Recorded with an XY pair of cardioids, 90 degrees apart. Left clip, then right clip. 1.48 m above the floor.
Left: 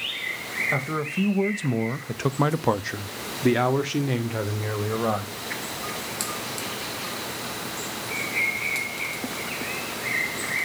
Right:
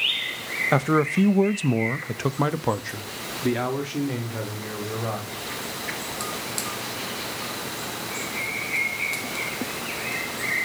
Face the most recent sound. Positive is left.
turn(degrees=60)